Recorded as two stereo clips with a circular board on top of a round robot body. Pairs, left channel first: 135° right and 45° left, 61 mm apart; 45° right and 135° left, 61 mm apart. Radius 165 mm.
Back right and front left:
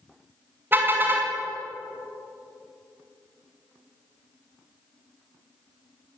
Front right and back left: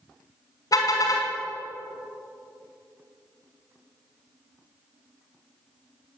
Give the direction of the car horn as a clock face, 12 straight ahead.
12 o'clock.